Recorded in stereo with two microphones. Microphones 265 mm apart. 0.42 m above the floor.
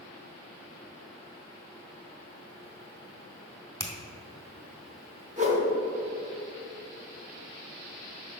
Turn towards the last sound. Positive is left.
turn(degrees=-25)  # may be behind; listen again after turning